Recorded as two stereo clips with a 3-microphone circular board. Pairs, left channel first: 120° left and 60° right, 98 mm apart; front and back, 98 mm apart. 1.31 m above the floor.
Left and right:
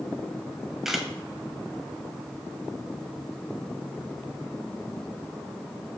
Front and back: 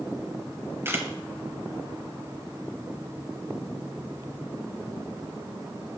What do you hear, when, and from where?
0.8 s a camera shutter: 145° right, 1.2 m